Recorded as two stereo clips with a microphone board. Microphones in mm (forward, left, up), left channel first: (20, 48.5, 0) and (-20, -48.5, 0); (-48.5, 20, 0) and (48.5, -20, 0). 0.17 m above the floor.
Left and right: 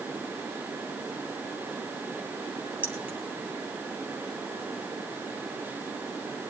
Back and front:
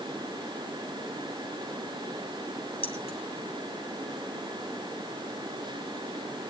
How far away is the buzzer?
I don't hear a buzzer.